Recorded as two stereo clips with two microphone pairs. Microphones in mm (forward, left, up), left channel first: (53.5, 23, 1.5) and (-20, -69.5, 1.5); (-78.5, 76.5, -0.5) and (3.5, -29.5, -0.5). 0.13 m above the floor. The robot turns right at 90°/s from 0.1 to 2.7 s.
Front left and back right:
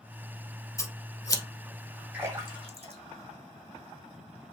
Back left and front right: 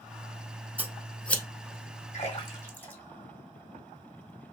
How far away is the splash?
About 1.8 m.